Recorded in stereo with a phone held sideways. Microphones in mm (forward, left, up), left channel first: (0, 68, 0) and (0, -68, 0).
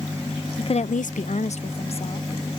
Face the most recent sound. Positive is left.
turn(degrees=45)  # may be behind; listen again after turning